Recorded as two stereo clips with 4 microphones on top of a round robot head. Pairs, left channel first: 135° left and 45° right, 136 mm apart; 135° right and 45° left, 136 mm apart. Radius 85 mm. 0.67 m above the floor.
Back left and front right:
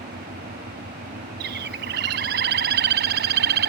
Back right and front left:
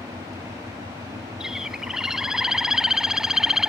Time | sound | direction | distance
0.0 | an engine running | 25° right | ?
1.4 | a bird | 45° right | ?